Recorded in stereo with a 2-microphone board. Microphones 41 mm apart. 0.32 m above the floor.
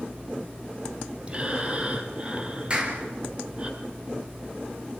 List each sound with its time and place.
1.3 s breathing: 30° right (ahead or behind), 2.5 m
2.7 s a clap: 30° right (ahead or behind), 4 m